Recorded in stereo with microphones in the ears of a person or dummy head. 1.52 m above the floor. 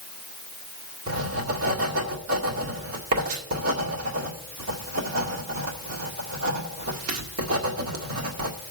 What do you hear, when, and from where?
1.1 s writing: 70° right (ahead or behind), 2.0 m